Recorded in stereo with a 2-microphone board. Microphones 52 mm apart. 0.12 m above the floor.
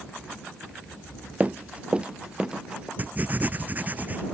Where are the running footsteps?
30° right (ahead or behind); by 2.9 s 15° right (ahead or behind).